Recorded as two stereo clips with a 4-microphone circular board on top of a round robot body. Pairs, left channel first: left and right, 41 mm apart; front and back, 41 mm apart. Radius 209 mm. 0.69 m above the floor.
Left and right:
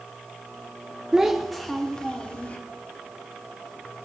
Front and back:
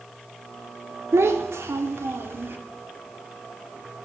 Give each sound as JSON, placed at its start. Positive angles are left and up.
{"t": 1.1, "sound": "a child speaking", "azimuth_deg": -170, "distance_m": 1.3}